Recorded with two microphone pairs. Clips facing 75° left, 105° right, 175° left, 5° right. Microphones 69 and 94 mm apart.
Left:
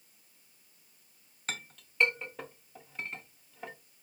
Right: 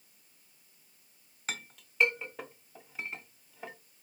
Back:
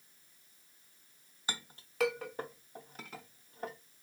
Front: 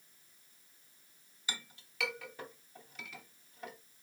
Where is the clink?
170° left, 0.6 m.